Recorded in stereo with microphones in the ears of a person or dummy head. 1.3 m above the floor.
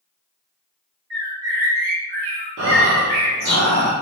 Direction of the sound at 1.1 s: 50° right (ahead or behind).